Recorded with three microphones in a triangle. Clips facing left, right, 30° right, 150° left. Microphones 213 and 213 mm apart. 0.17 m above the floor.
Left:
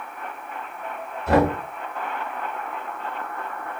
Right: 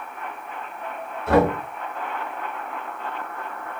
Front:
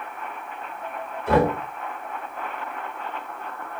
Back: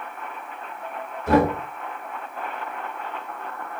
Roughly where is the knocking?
Behind left.